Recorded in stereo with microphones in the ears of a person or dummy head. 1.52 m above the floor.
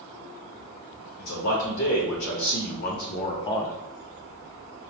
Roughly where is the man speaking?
Left.